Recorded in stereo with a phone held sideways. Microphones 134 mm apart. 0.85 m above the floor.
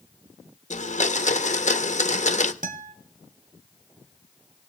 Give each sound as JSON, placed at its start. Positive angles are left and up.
{"t": 0.7, "sound": "a blender", "side_deg": 60, "distance_m": 0.9}
{"t": 2.6, "sound": "a guitar", "side_deg": -70, "distance_m": 1.4}